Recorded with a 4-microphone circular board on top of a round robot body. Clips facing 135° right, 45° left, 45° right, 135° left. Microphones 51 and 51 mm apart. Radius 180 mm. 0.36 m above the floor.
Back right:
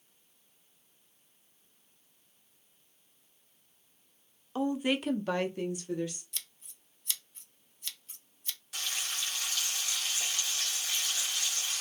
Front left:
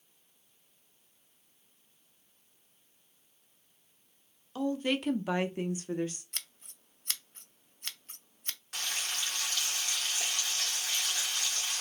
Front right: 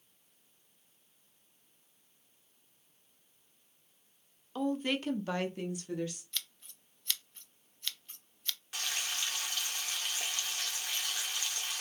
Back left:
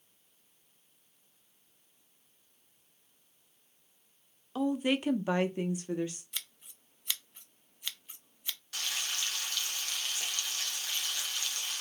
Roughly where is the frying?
Ahead.